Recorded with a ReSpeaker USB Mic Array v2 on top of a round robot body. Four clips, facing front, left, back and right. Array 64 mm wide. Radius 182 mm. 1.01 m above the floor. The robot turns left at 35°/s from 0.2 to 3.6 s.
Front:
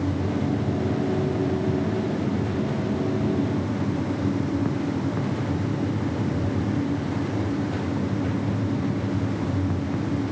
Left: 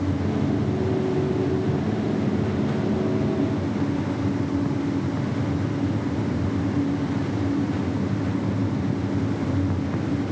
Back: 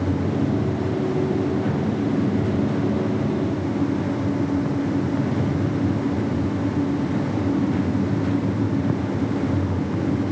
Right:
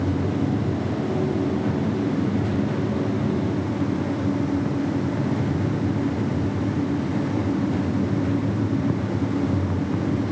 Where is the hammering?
I don't hear hammering.